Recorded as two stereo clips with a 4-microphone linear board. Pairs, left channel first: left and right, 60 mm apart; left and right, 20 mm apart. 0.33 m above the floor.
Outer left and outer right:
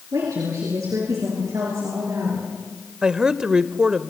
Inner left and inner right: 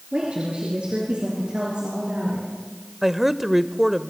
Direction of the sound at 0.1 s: 75° right (ahead or behind).